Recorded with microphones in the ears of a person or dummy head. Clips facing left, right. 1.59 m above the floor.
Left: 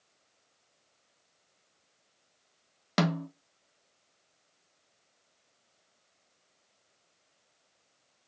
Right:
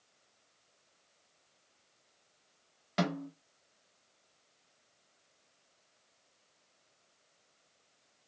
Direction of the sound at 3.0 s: 75° left (ahead or behind).